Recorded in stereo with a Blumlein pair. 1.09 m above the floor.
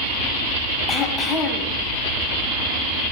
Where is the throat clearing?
20° left, 3.5 m.